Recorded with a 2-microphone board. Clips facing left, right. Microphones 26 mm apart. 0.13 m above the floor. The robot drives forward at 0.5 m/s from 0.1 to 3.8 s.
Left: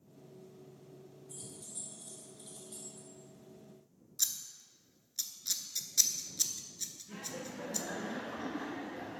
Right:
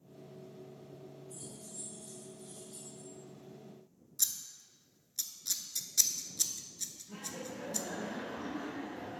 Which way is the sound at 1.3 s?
70° left (ahead or behind).